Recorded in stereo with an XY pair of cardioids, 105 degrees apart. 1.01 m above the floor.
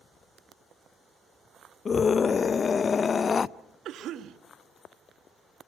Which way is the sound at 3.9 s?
70° right.